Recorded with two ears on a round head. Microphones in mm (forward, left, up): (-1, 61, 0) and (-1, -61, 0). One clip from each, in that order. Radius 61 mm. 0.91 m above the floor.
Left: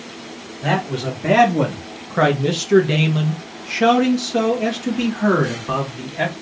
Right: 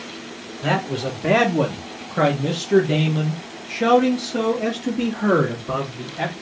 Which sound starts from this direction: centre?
A man speaking, at 0.6 s.